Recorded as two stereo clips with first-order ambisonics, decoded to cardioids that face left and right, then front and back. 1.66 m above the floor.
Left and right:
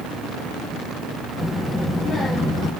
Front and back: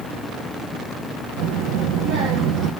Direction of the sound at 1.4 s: 175° left.